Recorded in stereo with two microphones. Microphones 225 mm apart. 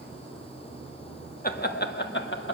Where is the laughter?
40° left (ahead or behind), 1.1 m; by 2.5 s 55° left (ahead or behind), 1.4 m.